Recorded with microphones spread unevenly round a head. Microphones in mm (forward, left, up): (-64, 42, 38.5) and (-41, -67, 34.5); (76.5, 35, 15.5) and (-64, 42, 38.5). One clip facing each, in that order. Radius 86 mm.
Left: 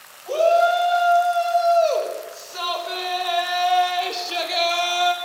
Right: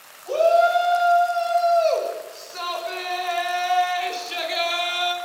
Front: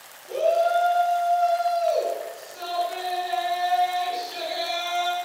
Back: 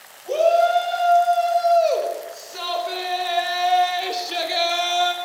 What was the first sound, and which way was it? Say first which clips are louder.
A shout: even, back 4 dB; 170° right.